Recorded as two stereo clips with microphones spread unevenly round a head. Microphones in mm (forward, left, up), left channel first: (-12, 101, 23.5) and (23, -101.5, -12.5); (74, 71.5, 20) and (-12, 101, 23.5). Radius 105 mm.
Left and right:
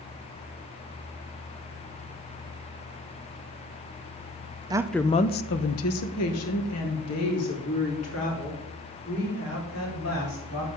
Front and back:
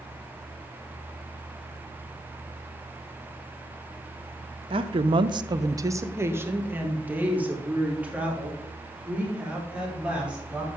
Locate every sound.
4.7 s a woman speaking: 155° right, 0.5 m; by 10.8 s 80° left, 5 m